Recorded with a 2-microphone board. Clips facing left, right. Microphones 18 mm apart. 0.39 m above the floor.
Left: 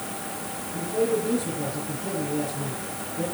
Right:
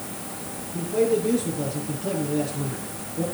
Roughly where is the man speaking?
Right.